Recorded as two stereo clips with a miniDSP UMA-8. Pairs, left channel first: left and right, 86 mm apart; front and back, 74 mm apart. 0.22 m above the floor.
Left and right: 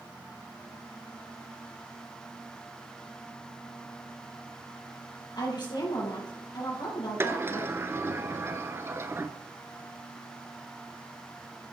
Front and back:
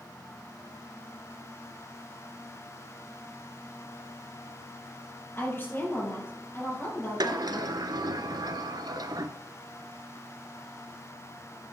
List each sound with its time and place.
5.3 s a woman speaking: 60° left, 4.5 m
7.2 s a sliding door: 150° right, 0.6 m